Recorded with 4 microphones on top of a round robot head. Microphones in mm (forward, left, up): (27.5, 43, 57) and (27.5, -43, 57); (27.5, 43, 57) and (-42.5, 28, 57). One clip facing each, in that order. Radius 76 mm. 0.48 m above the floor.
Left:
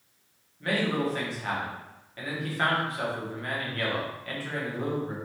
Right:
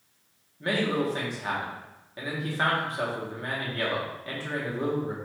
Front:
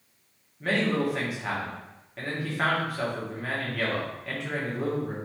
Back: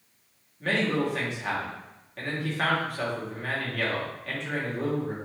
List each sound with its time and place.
0.6 s a man speaking: 65° right, 1.0 m